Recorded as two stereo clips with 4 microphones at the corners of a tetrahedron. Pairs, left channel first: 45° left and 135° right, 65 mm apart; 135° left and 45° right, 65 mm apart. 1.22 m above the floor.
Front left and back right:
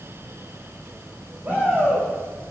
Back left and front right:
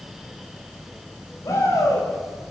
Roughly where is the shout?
Behind.